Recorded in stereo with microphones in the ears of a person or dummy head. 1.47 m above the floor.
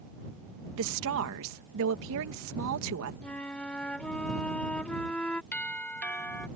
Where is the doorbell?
10° left (ahead or behind).